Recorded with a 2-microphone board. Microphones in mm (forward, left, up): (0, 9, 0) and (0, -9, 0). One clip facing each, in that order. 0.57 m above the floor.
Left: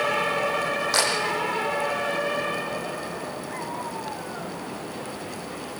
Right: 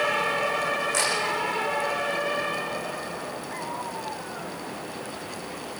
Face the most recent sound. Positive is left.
turn(degrees=80)